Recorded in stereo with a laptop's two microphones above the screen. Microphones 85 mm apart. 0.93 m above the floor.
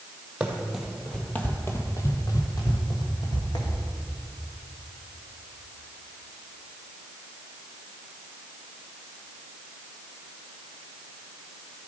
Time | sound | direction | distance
0.4 | running footsteps | 15° right (ahead or behind) | 1.2 m